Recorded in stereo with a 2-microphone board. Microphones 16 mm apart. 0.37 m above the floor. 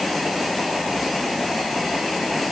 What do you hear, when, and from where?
Only background noise.